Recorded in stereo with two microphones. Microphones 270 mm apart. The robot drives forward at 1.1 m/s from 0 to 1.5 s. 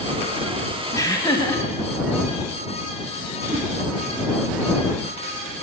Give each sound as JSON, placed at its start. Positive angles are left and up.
{"t": 0.9, "sound": "laughter", "side_deg": 10, "distance_m": 1.0}
{"t": 3.5, "sound": "a whoosh", "side_deg": -30, "distance_m": 0.9}